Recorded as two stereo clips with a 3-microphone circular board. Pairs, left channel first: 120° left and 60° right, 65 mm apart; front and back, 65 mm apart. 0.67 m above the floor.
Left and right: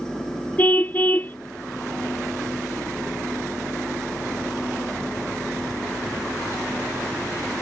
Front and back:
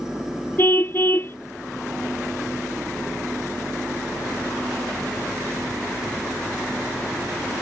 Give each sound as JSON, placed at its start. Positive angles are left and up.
{"t": 0.6, "sound": "a car horn", "azimuth_deg": 55}